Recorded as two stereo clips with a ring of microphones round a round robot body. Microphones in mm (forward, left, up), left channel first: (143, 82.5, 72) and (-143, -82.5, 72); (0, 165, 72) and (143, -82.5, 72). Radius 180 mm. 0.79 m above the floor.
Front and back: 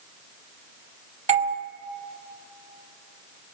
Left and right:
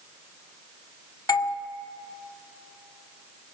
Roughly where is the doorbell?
Behind.